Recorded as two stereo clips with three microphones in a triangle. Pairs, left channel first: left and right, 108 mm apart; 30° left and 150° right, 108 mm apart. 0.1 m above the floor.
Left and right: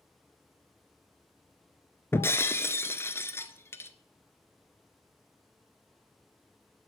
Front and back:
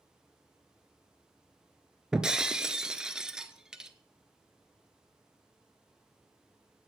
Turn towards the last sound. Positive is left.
turn(degrees=130)